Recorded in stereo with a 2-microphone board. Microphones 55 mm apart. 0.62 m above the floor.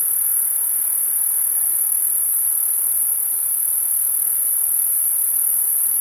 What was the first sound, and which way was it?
An insect, 30° right (ahead or behind).